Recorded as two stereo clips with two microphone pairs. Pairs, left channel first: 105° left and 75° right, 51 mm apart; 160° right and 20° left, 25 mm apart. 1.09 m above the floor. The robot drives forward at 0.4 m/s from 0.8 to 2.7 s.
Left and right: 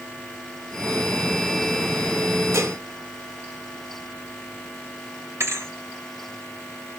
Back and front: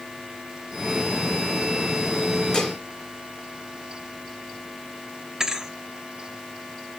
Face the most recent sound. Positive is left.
turn(degrees=-45)